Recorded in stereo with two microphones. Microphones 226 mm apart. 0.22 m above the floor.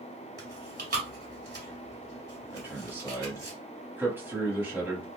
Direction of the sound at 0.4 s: 45° right (ahead or behind).